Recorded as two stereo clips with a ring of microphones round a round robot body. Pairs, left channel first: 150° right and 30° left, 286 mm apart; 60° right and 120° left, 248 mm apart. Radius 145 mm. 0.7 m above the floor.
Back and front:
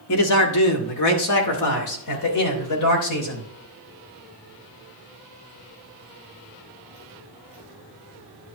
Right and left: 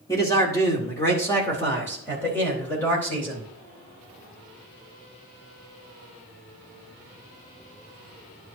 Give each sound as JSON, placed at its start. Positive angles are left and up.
{"t": 0.1, "sound": "a man speaking", "azimuth_deg": -135, "distance_m": 1.9}